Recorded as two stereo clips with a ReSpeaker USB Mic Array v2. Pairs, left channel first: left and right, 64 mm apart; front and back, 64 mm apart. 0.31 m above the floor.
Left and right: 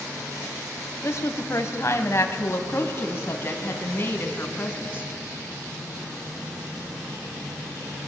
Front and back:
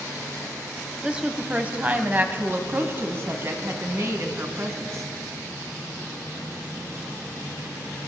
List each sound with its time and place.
1.0 s a woman speaking: 105° left, 2 m; by 5.1 s 145° left, 4 m